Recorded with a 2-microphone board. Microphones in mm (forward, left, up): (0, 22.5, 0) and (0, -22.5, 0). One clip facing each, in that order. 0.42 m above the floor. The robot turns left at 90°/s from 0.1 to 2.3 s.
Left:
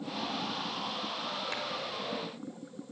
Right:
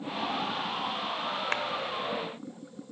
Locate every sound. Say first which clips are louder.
1.5 s a clap: right 9 dB; 55° right (ahead or behind), 1.1 m